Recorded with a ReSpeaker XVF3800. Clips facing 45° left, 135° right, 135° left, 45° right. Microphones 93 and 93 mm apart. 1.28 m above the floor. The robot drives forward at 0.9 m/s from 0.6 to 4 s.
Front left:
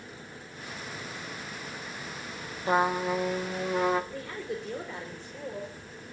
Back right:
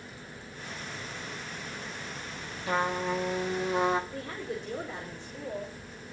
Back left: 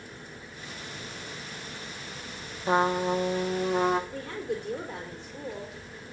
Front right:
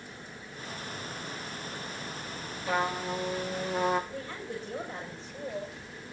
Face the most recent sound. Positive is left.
turn(degrees=160)